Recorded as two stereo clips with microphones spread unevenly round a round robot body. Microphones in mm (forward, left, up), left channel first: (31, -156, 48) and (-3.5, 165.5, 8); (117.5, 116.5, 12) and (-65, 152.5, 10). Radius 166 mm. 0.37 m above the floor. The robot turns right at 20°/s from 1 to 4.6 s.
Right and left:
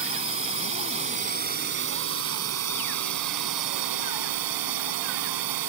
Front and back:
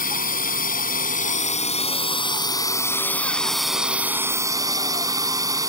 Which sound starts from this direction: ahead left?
A drone, at 0.0 s.